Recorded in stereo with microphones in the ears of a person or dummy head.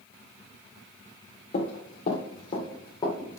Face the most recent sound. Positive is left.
turn(degrees=20)  # may be behind; listen again after turning